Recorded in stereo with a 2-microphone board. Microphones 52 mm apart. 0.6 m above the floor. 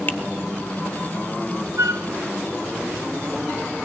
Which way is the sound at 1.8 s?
60° right (ahead or behind).